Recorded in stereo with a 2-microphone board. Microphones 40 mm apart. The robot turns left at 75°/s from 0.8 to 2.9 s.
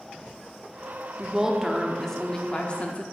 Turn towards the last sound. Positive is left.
turn(degrees=100)